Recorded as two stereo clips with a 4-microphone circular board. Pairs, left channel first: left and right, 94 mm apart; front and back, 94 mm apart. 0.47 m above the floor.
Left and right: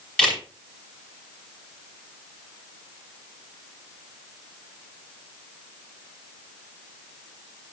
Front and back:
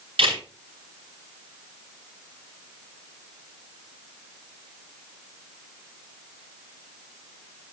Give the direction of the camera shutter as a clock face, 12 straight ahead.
6 o'clock.